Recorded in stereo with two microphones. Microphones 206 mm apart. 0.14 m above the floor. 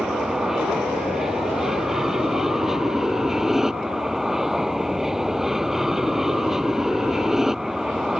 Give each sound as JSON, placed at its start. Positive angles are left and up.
{"t": 0.0, "sound": "an aircraft", "side_deg": 0}